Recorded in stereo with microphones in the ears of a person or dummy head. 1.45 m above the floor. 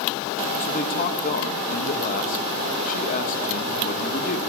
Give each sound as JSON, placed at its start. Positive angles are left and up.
{"t": 0.6, "sound": "a man speaking", "side_deg": 45, "distance_m": 1.3}